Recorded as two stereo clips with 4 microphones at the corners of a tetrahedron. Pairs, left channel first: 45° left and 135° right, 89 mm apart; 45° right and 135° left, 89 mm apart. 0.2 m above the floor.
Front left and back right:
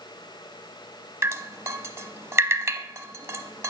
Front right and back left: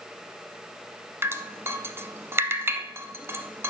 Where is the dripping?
Straight behind, 0.6 m.